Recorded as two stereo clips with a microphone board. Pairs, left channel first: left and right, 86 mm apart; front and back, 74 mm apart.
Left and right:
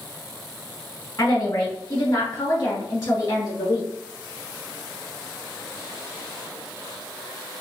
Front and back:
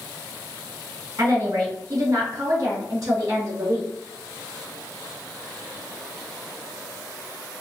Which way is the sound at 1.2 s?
130° left.